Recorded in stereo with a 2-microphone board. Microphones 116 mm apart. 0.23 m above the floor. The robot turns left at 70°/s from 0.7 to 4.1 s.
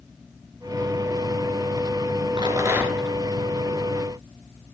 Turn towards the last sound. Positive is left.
turn(degrees=105)